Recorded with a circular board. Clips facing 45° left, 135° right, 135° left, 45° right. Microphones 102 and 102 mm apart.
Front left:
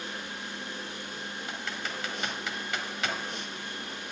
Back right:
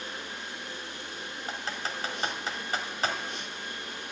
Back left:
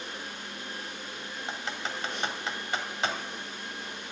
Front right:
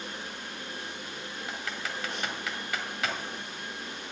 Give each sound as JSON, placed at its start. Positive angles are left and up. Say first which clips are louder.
{"t": 1.5, "sound": "typing on a keyboard", "louder": "back right 3 dB, back left 2 dB", "azimuth_deg": -175, "distance_m": 1.4}